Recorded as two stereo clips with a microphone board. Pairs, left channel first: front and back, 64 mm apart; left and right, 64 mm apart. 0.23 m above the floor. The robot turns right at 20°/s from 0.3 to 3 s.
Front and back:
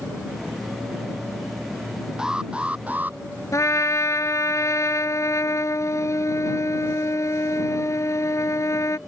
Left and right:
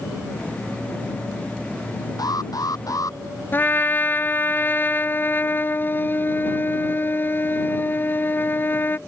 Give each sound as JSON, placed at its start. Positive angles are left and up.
{"t": 2.2, "sound": "an alarm", "azimuth_deg": 100}
{"t": 3.5, "sound": "a trumpet", "azimuth_deg": 35}